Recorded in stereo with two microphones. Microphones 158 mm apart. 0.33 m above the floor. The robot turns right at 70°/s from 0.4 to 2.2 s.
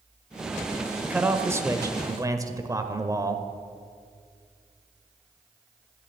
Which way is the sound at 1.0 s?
5° right (ahead or behind).